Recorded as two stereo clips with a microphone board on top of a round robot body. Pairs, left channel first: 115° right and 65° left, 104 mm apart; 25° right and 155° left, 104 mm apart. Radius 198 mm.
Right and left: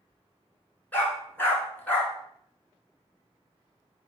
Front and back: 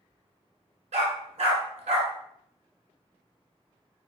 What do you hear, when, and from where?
0.9 s a dog barking: 175° left, 1.5 m